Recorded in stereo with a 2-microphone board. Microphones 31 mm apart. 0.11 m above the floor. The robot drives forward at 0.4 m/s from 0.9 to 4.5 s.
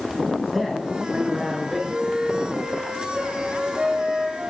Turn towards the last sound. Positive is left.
turn(degrees=-35)  # may be behind; listen again after turning